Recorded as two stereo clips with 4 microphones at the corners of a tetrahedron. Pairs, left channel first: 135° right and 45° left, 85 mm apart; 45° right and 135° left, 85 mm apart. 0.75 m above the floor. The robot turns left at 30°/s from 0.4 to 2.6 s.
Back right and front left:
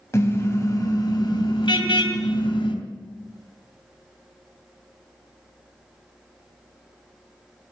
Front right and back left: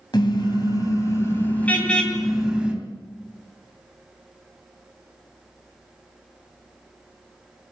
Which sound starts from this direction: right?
A car horn, at 0.1 s.